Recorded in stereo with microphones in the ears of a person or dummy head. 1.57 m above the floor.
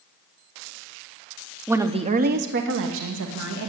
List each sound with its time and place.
1.7 s a woman speaking: 5° right (ahead or behind), 0.8 m; by 3.7 s 85° right, 2 m